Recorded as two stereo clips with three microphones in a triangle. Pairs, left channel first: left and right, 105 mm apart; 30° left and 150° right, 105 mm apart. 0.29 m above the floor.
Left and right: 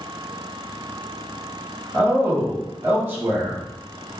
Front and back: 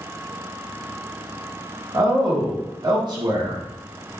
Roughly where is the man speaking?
Behind right.